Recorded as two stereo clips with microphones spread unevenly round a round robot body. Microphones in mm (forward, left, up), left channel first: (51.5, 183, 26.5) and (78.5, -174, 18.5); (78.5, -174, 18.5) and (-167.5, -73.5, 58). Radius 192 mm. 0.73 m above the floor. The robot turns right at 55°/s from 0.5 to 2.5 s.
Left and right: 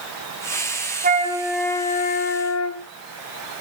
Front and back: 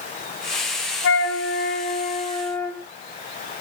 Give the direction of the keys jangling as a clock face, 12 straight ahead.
No keys jangling in this recording.